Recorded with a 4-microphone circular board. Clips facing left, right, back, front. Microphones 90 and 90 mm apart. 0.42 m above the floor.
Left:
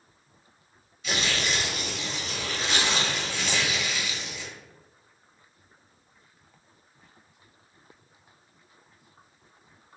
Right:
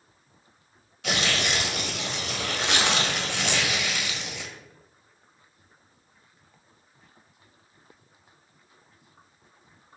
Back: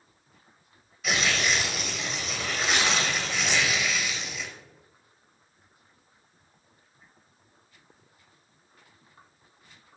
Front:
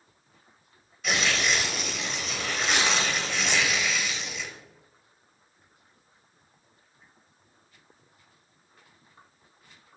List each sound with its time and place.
1.0 s tearing paper: 90° right, 0.8 m